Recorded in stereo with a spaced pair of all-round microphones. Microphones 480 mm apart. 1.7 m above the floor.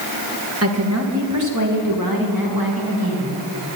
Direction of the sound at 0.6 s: 30° right (ahead or behind).